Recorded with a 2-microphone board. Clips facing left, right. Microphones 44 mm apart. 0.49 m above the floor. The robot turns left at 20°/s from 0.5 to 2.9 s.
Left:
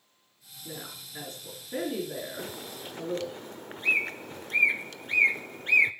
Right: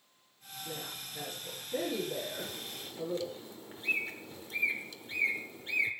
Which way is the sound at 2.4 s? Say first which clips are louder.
Left 3 dB; 55° left (ahead or behind).